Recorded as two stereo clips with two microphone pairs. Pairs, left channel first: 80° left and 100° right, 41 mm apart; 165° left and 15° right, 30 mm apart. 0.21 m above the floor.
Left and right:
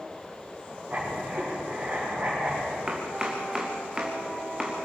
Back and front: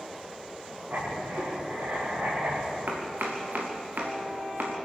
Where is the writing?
40° right, 9.5 m.